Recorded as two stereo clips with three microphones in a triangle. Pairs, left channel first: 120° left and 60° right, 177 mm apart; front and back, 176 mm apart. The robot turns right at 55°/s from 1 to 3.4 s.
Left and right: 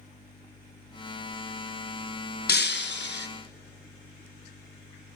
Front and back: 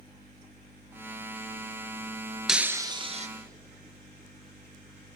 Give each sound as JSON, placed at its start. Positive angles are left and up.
{"t": 2.5, "sound": "breaking glass", "azimuth_deg": 90, "distance_m": 0.9}